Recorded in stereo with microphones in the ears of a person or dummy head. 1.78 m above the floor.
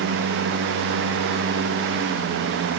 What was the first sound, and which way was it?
Only background noise.